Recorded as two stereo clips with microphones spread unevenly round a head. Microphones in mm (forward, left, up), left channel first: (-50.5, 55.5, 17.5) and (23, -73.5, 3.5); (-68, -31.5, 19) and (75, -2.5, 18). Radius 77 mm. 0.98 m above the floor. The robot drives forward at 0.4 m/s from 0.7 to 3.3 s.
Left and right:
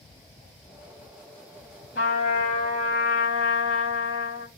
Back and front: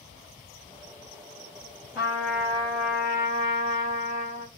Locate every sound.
1.9 s a trumpet: 95° left, 6 m; by 4.5 s 100° left, 6 m